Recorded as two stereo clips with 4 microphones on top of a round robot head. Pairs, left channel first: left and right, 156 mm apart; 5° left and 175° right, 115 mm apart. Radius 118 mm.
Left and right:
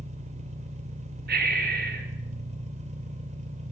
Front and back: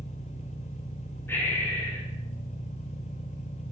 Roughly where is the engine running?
Ahead right.